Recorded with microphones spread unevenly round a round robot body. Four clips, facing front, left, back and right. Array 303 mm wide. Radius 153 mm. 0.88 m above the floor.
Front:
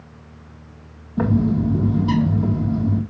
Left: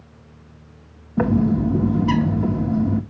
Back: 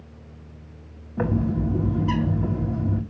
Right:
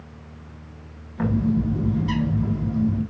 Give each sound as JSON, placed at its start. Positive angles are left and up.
{"t": 1.2, "sound": "a bird", "azimuth_deg": 65, "distance_m": 2.0}